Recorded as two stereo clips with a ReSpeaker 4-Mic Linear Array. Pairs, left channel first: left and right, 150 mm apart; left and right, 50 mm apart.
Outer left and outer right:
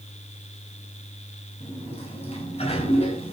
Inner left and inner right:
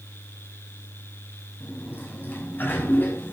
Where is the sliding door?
45° left (ahead or behind), 5.5 m.